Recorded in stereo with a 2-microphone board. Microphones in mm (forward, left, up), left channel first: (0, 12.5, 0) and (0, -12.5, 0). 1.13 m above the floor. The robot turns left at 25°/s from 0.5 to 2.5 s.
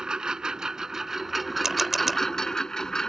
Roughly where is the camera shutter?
Centre.